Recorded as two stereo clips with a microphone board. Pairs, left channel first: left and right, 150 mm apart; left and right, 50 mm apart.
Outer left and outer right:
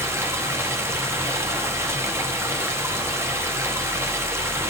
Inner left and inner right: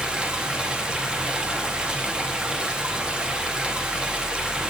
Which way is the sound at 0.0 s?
20° right (ahead or behind).